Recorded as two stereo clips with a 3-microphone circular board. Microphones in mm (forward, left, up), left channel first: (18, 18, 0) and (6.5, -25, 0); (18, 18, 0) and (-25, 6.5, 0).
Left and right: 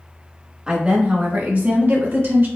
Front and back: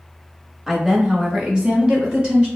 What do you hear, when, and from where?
0.7 s a woman speaking: 95° right, 0.9 m; by 2.5 s 100° right, 1.6 m